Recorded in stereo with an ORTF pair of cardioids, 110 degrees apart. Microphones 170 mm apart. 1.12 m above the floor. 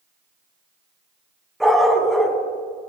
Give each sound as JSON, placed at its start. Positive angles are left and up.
{"t": 1.6, "sound": "a dog barking", "azimuth_deg": 0, "distance_m": 3.5}